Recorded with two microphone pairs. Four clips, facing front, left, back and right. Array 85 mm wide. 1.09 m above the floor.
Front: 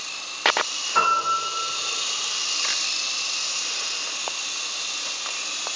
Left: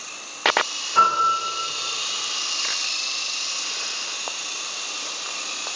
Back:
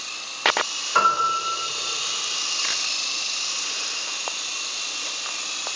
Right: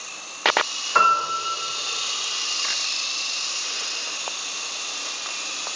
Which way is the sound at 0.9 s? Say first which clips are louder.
Left 1 dB, back 1 dB; 120° right.